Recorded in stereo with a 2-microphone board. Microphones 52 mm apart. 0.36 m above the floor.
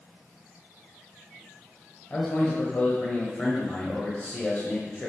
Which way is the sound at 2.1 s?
35° left (ahead or behind).